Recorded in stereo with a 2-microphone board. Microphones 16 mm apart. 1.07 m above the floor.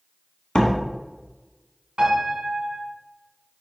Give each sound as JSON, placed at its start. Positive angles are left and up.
{"t": 0.6, "sound": "a door slam", "side_deg": 65, "distance_m": 1.6}
{"t": 2.0, "sound": "a piano", "side_deg": -70, "distance_m": 2.5}